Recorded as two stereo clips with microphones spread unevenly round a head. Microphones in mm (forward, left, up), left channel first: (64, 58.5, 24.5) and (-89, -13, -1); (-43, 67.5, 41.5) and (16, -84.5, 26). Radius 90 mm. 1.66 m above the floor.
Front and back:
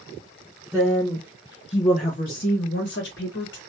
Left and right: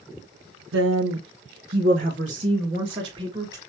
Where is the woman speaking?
65° right, 0.9 m; by 3.6 s straight ahead, 1.7 m.